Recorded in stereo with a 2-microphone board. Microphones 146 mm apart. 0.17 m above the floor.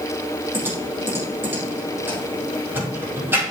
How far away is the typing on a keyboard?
About 4.5 m.